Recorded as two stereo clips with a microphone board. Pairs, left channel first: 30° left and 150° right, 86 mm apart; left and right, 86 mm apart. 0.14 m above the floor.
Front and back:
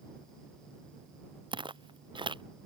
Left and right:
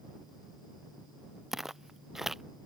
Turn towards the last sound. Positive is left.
turn(degrees=-175)